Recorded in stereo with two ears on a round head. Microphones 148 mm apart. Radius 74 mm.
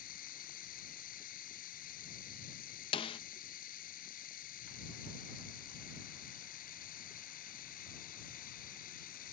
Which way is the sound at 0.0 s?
55° left (ahead or behind).